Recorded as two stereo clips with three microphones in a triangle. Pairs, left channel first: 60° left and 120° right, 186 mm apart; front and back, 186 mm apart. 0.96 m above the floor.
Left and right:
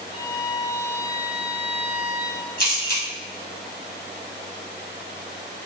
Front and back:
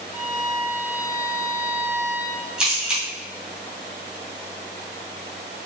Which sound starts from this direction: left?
A camera shutter, at 2.6 s.